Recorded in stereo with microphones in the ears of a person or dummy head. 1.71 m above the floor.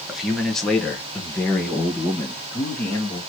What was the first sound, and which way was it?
A man speaking, centre (ahead or behind).